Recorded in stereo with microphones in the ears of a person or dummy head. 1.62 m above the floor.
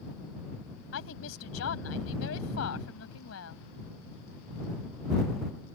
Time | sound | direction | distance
0.9 | a woman speaking | 80° left | ?